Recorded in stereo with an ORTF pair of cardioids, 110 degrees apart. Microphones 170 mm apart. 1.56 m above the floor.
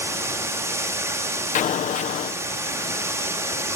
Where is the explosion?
45° left, 1.3 m.